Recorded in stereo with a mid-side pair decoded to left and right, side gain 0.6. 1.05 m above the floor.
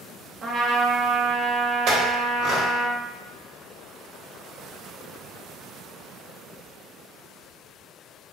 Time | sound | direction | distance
0.4 | a trumpet | 40° right | 0.7 m
1.9 | a clink | 65° right | 1.0 m